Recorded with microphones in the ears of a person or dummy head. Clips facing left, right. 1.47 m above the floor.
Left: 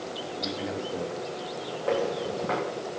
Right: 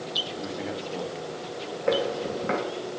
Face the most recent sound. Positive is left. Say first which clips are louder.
# right 2 dB
turn(degrees=-30)  # may be behind; listen again after turning